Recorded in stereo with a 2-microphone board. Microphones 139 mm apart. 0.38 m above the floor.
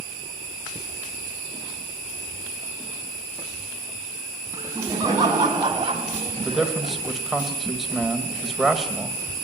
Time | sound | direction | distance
4.5 | laughter | 20° right (ahead or behind) | 4 m
6.4 | a man speaking | centre (ahead or behind) | 1.8 m